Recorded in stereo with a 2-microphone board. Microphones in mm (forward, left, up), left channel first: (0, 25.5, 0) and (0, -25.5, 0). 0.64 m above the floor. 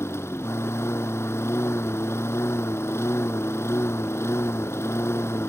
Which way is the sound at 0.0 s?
60° left (ahead or behind).